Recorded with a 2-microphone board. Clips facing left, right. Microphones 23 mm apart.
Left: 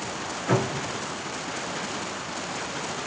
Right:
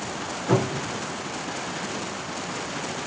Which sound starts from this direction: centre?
A cupboard door, at 0.5 s.